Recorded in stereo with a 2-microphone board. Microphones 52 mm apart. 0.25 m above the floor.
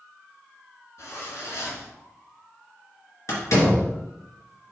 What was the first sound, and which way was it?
A zipper, 60° left (ahead or behind).